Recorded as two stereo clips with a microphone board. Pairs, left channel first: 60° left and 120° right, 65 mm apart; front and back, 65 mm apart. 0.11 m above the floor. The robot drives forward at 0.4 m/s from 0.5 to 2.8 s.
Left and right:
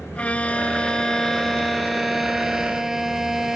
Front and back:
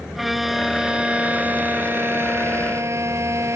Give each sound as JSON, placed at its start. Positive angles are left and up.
{"t": 0.1, "sound": "a violin", "azimuth_deg": 100}